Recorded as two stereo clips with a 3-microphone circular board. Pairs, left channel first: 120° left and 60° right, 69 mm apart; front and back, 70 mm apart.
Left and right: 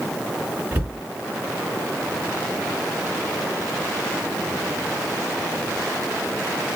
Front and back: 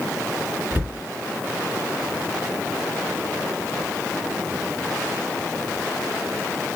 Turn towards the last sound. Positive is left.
turn(degrees=-115)